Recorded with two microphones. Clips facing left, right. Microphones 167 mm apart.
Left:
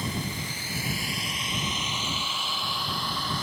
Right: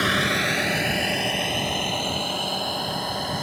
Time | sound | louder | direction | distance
0.0 | a vehicle | right 8 dB | 85° right | ?